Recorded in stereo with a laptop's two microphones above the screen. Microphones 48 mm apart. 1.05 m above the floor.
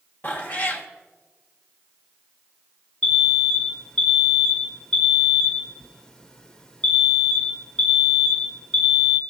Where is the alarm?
15° left (ahead or behind), 0.8 m.